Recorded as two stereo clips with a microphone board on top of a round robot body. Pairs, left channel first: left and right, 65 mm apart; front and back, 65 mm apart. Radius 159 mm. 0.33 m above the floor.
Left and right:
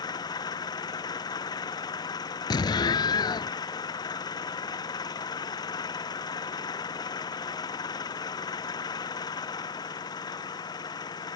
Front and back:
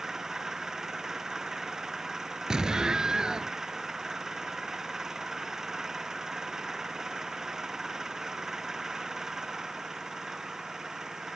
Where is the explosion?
100° left.